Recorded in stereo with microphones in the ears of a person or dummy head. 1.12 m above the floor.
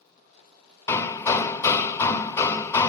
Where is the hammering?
15° left (ahead or behind), 0.5 m.